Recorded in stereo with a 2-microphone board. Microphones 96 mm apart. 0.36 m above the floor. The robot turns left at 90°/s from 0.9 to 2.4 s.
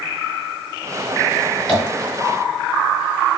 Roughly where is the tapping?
Centre.